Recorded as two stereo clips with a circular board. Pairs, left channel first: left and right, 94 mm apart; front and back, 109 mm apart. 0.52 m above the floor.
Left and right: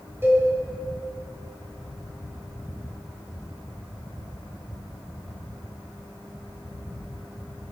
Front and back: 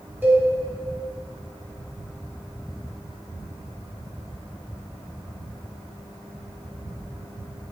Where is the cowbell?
125° right, 1.5 m.